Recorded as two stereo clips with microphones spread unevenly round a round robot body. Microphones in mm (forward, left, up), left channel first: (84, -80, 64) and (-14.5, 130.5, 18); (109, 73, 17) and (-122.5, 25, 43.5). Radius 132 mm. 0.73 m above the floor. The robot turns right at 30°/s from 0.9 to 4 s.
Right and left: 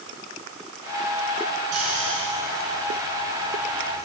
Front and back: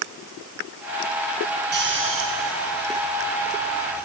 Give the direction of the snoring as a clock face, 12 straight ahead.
7 o'clock.